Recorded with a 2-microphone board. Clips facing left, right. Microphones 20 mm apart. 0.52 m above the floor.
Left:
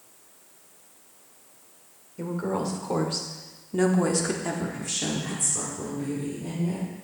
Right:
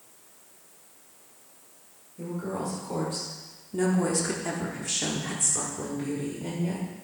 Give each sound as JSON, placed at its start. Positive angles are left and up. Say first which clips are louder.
{"t": 2.2, "sound": "a woman speaking", "louder": "left 4 dB", "side_deg": 55, "distance_m": 1.9}